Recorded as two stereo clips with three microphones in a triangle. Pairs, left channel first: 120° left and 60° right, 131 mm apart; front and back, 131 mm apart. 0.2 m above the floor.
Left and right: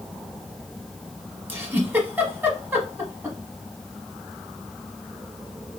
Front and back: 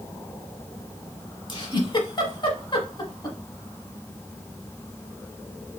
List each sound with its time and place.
1.5 s a giggle: 5° left, 1.0 m